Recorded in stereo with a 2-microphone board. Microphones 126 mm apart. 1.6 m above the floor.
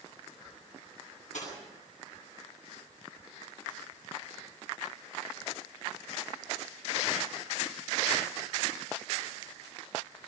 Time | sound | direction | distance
1.3 | cutlery clinking | 75° left (ahead or behind) | 9 m